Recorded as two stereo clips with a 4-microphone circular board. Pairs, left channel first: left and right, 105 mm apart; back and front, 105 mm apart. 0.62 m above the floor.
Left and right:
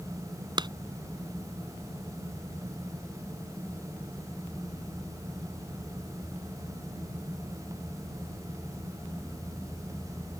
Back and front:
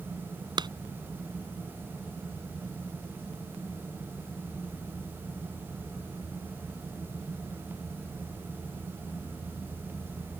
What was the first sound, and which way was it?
A clap, 45° right.